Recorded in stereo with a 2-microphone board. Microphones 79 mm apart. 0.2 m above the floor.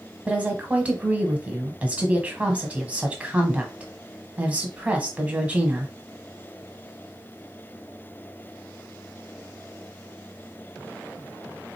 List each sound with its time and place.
0.3 s a woman speaking: 15° right (ahead or behind), 1.3 m